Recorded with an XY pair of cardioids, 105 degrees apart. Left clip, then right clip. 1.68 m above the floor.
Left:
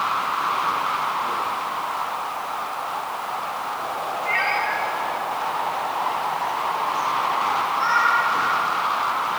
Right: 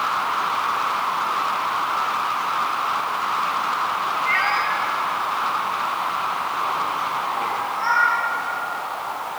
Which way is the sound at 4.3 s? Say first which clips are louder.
Right 1 dB; 45° right.